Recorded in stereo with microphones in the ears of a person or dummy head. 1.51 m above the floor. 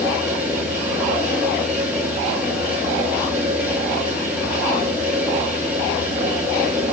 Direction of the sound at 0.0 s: 5° right (ahead or behind).